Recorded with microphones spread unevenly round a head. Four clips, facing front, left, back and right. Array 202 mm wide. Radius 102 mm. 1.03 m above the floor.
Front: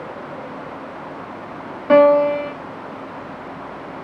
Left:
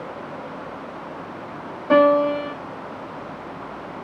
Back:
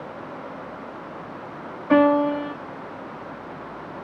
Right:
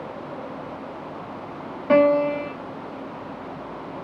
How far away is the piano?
About 0.8 m.